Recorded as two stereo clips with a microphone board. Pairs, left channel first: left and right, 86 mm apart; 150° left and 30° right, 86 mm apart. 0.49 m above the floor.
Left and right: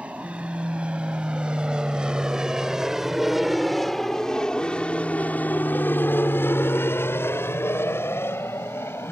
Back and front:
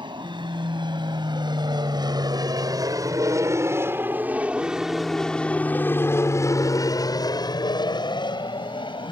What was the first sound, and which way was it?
An aircraft, 15° right.